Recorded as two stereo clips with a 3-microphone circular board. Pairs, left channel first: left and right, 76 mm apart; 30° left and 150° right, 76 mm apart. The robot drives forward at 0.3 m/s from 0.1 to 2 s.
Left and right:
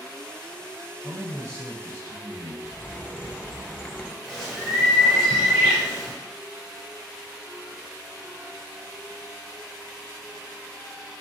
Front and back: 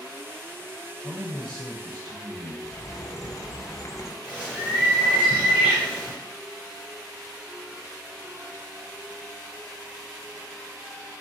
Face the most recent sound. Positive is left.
turn(degrees=-170)